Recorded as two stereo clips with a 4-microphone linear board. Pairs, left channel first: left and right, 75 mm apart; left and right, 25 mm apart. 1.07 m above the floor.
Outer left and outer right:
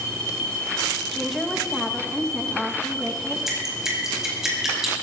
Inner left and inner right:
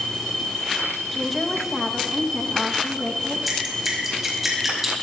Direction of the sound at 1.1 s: Centre (ahead or behind).